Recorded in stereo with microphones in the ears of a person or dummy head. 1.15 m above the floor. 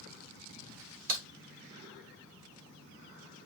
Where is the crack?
50° right (ahead or behind), 2.5 m.